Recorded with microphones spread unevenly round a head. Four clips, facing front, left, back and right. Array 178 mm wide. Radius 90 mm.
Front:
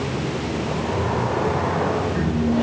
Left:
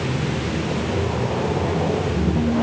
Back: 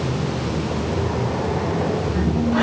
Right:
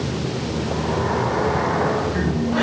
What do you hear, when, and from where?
Only background noise.